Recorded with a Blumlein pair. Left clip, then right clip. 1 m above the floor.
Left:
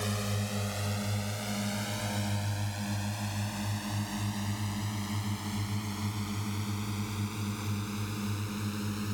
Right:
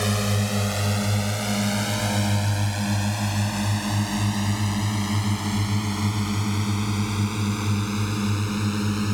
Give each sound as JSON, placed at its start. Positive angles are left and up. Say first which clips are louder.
{"t": 0.0, "sound": "a drone", "louder": "right 10 dB", "azimuth_deg": -25}